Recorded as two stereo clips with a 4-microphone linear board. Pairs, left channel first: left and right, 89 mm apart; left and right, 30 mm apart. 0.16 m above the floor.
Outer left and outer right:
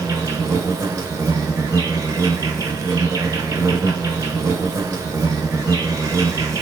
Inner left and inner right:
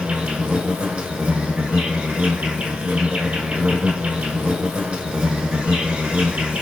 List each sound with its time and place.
0.0 s an insect: 35° right (ahead or behind), 0.9 m